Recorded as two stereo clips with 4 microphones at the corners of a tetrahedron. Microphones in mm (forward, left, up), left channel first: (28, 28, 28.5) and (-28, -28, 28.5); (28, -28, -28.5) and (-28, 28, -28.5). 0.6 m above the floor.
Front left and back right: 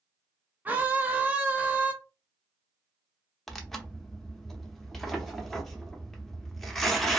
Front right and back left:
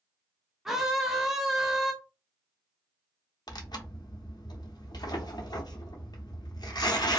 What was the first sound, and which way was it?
A scream, 150° right.